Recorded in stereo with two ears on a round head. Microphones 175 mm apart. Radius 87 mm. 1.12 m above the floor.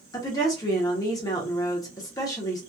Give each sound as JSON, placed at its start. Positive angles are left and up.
{"t": 0.1, "sound": "a woman speaking", "side_deg": 20, "distance_m": 0.7}